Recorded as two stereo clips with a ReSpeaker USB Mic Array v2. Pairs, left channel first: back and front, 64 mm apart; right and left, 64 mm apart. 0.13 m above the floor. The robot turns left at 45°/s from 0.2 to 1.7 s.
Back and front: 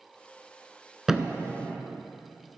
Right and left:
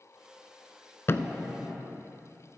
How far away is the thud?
About 0.6 m.